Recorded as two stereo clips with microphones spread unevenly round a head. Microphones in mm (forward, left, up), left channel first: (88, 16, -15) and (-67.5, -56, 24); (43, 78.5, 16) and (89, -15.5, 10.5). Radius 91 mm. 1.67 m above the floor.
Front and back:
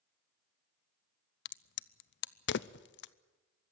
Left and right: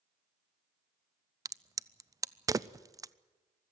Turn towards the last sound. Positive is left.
turn(degrees=-5)